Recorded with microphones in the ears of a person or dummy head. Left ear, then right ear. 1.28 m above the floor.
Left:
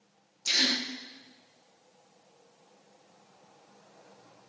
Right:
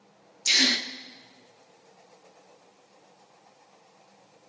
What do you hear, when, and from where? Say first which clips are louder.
0.5 s a gasp: right 4 dB; 10° right (ahead or behind), 1.3 m